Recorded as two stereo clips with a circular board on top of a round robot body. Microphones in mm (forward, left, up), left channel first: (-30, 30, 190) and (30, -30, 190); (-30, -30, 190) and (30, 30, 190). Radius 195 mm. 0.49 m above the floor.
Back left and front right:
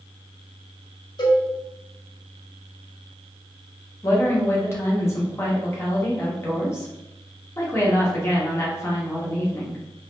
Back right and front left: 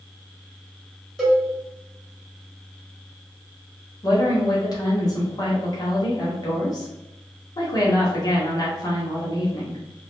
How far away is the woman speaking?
About 1.6 m.